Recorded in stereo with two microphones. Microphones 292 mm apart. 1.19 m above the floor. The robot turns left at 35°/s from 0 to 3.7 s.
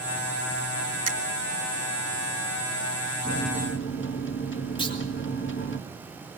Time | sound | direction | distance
1.1 | a finger snap | 60° right (ahead or behind) | 1.9 m
3.2 | a microwave | 25° left (ahead or behind) | 1.9 m
4.8 | a clunk | 15° left (ahead or behind) | 4 m